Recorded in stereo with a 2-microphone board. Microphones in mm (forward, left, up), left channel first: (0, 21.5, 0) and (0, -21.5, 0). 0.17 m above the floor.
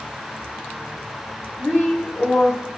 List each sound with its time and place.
1.6 s a woman speaking: 40° left (ahead or behind), 1.7 m